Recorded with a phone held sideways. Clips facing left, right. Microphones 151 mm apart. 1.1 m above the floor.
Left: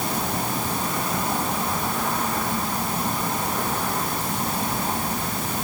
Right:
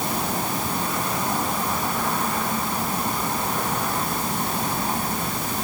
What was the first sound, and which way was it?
Only background noise.